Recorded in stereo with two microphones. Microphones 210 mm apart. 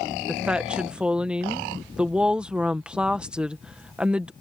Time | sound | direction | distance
0.3 | a woman speaking | 5° right (ahead or behind) | ?